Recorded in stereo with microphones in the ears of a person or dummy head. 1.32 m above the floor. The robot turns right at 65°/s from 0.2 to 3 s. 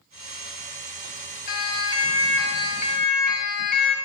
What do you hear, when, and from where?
1.5 s a siren: 50° left (ahead or behind), 7 m; by 4.0 s 45° left (ahead or behind), 6.5 m